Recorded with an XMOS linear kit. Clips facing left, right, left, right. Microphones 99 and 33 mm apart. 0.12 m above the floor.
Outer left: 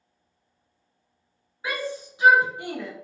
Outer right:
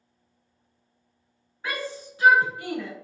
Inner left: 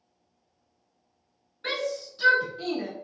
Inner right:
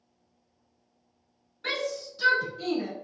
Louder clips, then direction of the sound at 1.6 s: Outer left 2 dB, inner left 1 dB; 10° left (ahead or behind).